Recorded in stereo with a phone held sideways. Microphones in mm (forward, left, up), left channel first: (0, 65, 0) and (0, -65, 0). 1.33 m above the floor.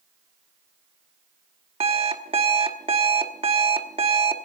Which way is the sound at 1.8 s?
45° right (ahead or behind).